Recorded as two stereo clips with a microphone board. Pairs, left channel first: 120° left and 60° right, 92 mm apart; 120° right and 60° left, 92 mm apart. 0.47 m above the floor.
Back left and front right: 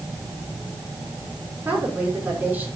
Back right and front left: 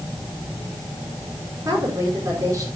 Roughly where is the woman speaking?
Ahead.